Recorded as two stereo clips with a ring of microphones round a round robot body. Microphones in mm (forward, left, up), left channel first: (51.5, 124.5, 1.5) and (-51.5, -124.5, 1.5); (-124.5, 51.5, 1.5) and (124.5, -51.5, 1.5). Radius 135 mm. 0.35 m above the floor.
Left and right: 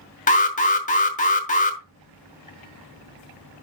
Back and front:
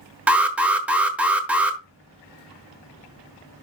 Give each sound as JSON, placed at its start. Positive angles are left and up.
{"t": 0.3, "sound": "an alarm", "azimuth_deg": 55, "distance_m": 1.2}